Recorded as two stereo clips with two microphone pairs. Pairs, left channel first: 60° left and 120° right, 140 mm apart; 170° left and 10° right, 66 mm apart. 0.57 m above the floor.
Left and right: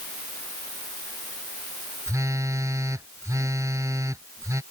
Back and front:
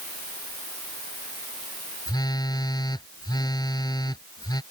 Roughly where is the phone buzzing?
Behind.